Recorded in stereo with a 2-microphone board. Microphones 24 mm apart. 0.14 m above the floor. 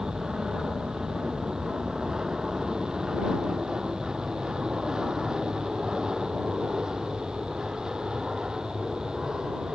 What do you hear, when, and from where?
0.0 s an aircraft: 25° right (ahead or behind)